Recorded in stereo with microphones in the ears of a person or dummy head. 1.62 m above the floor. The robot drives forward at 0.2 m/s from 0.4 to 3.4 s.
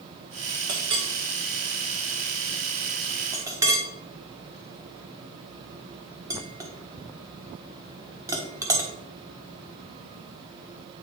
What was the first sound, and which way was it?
A clink, 20° right (ahead or behind).